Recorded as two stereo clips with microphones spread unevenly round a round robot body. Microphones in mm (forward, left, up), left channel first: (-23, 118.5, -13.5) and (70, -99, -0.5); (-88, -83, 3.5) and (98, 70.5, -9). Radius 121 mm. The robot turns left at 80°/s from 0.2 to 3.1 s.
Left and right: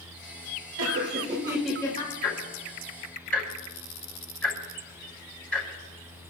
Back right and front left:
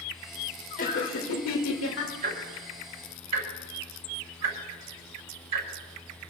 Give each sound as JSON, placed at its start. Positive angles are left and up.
{"t": 0.8, "sound": "laughter", "azimuth_deg": -85, "distance_m": 2.0}
{"t": 2.2, "sound": "ticking", "azimuth_deg": 100, "distance_m": 6.5}